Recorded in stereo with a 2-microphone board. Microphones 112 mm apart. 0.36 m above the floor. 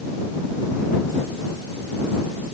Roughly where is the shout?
I don't hear a shout.